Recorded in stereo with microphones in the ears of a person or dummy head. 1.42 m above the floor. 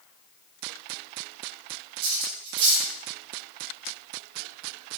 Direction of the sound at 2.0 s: 80° right.